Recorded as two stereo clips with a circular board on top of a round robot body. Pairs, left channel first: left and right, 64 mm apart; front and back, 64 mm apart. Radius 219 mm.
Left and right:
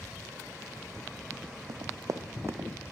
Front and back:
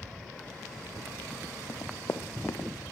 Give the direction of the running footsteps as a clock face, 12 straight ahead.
2 o'clock.